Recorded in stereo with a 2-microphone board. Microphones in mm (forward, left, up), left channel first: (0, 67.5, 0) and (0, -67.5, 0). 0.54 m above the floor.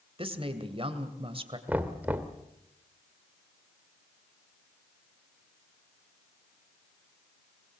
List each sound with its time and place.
0.2 s a woman speaking: 45° right (ahead or behind), 2 m
1.7 s knocking: 15° right (ahead or behind), 1.4 m